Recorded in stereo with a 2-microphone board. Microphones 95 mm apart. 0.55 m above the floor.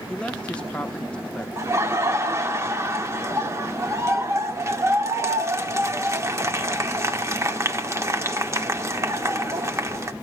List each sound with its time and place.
0.1 s a man speaking: 10° left (ahead or behind), 0.7 m
1.6 s laughter: 30° right (ahead or behind), 0.9 m